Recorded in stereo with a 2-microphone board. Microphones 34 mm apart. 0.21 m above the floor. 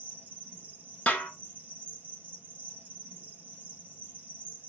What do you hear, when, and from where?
0.0 s an insect: 60° right (ahead or behind), 1.3 m
1.1 s a snare drum: 45° left (ahead or behind), 0.8 m